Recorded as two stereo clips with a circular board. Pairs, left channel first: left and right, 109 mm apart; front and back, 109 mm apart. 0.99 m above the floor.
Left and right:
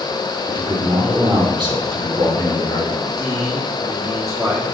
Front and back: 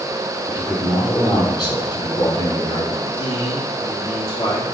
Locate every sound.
0.5 s a man speaking: 50° right, 3 m
3.0 s a man speaking: 30° right, 2 m